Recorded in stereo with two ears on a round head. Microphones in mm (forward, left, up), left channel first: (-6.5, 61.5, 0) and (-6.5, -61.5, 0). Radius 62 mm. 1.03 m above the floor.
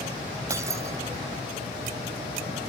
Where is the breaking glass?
20° right (ahead or behind).